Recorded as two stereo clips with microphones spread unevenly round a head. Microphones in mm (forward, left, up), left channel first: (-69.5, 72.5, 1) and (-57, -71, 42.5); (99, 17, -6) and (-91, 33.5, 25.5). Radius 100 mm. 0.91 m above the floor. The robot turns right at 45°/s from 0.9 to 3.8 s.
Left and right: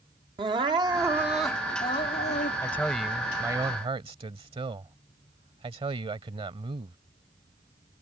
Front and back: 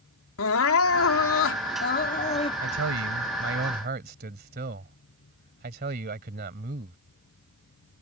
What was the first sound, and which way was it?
Crying, 15° right.